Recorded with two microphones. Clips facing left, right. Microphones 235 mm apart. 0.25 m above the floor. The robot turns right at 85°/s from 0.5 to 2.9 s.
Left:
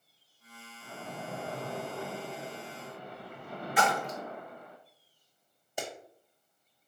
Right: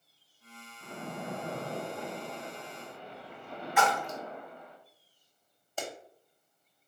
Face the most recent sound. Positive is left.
turn(degrees=15)  # may be behind; listen again after turning